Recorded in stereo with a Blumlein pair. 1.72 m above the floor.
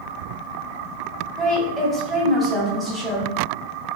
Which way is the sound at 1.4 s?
Straight ahead.